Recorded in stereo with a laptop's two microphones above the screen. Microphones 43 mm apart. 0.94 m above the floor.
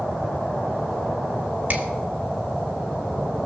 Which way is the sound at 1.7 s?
35° right (ahead or behind).